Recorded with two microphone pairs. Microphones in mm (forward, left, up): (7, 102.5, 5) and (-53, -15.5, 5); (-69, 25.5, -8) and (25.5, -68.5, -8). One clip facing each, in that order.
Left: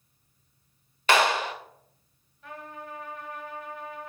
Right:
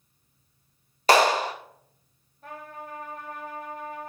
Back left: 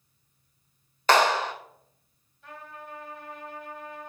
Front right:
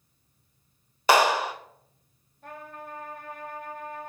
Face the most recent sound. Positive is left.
turn(degrees=-75)